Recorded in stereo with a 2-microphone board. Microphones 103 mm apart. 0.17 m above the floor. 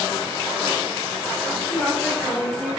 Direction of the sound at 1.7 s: 25° left (ahead or behind).